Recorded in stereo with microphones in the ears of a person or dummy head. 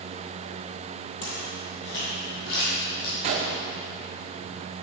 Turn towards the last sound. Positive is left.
turn(degrees=-35)  # may be behind; listen again after turning